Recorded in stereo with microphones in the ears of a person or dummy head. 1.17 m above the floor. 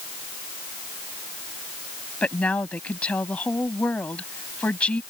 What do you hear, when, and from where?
2.2 s a woman speaking: 10° left (ahead or behind)